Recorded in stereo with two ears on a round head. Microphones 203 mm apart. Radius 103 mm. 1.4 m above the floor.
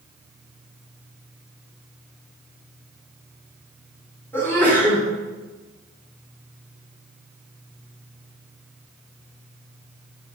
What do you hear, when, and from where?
4.3 s a sneeze: 10° left (ahead or behind), 4 m